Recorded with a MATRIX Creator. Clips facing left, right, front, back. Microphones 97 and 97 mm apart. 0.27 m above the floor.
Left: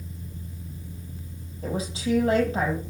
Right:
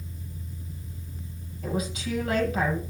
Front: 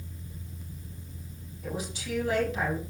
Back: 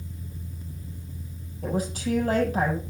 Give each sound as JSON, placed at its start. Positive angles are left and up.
{"t": 1.6, "sound": "a woman speaking", "azimuth_deg": 145, "distance_m": 6.5}